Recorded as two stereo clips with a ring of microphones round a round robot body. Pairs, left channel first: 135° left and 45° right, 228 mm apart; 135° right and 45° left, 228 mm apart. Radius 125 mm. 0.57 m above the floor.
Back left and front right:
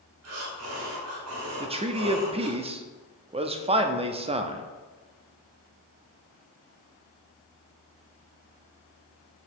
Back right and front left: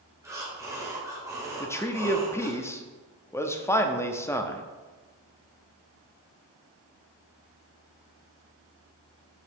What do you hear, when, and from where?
0.2 s breathing: 30° right, 1.9 m
1.6 s a man speaking: 70° right, 0.6 m